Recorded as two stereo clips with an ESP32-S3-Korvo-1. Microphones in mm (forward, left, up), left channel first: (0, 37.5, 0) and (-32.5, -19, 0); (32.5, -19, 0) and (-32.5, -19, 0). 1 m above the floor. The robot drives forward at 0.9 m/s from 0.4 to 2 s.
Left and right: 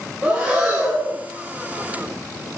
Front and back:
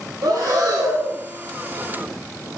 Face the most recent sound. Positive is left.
turn(degrees=170)